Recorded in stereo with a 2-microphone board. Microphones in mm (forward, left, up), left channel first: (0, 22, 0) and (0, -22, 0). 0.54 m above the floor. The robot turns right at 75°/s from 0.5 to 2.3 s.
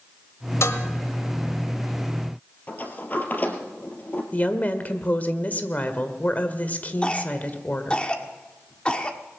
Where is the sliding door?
40° left (ahead or behind), 2 m.